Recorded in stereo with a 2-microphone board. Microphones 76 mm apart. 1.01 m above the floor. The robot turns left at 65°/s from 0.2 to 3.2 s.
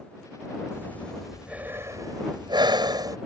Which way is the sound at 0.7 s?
35° left.